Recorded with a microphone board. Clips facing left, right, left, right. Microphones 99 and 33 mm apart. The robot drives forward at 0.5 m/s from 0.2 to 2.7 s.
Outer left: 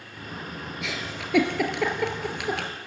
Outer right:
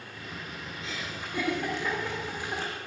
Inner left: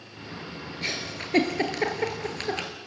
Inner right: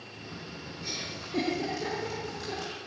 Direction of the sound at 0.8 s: 90° left.